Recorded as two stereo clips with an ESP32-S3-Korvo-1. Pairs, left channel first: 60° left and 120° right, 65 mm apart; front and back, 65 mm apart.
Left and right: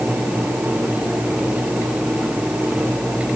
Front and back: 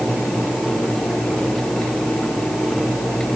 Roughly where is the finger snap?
I don't hear a finger snap.